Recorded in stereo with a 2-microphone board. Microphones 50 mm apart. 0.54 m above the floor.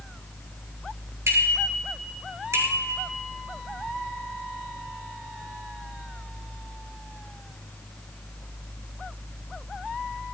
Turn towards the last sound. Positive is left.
turn(degrees=-80)